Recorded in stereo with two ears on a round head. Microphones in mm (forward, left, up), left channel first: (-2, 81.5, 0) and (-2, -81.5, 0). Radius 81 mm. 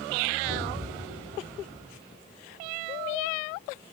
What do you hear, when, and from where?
0.4 s an explosion: 10° left (ahead or behind), 4.5 m